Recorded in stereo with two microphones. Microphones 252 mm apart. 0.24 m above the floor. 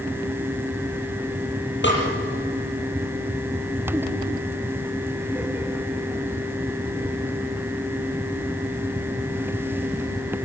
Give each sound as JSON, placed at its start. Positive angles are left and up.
{"t": 1.8, "sound": "a snare drum", "side_deg": 50, "distance_m": 7.0}